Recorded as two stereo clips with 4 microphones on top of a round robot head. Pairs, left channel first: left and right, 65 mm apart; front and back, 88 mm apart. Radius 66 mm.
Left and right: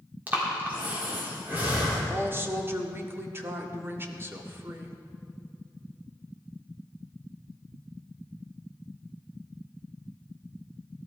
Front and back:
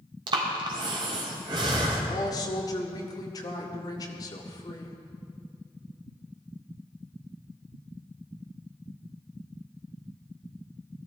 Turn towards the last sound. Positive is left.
turn(degrees=-45)